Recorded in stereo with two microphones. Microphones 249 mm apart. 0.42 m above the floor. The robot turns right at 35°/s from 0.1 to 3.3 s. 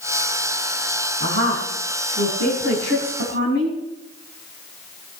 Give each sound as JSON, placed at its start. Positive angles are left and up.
{"t": 1.2, "sound": "a woman speaking", "azimuth_deg": -125, "distance_m": 4.0}